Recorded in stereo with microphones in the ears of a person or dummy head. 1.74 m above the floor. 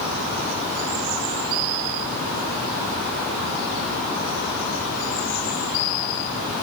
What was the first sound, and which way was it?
Only background noise.